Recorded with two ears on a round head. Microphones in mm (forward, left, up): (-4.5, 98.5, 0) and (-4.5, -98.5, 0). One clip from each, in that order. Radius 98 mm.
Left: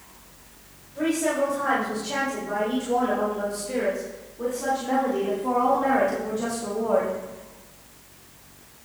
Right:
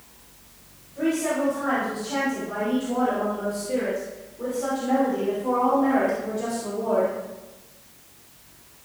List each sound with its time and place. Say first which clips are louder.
0.9 s a woman speaking: left 1 dB; 75° left (ahead or behind), 4.5 m; by 7.1 s 55° left (ahead or behind), 1.4 m